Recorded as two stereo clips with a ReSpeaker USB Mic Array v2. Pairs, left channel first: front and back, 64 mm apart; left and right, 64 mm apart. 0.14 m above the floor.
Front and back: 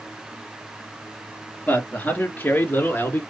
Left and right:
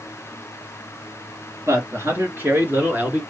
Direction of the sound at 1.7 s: 60° right.